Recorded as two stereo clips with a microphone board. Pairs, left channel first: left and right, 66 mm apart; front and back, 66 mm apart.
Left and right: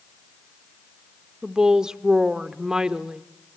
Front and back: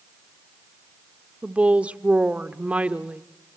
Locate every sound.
1.4 s a woman speaking: 150° right, 0.7 m